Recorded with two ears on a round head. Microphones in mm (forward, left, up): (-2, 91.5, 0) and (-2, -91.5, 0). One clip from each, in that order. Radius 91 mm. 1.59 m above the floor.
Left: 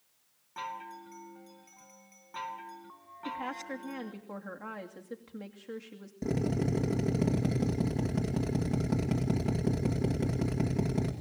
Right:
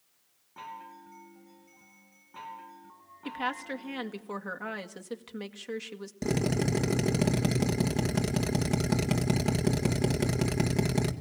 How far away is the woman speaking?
About 2 m.